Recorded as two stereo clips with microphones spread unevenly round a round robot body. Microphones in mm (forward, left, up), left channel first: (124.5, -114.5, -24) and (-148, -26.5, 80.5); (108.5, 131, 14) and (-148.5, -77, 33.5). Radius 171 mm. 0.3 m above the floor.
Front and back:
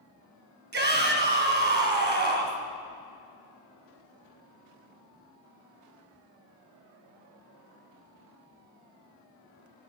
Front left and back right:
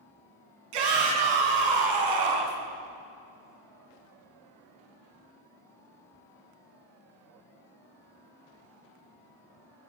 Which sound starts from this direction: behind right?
A shout, at 0.7 s.